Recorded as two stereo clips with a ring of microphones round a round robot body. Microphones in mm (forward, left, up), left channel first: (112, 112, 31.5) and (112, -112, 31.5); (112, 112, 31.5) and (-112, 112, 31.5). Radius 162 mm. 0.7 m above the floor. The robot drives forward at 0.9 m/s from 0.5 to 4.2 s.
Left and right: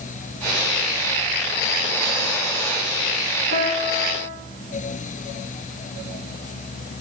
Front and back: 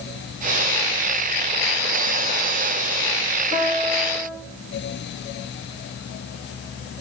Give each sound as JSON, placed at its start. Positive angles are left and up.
{"t": 3.5, "sound": "a piano", "azimuth_deg": -120, "distance_m": 2.5}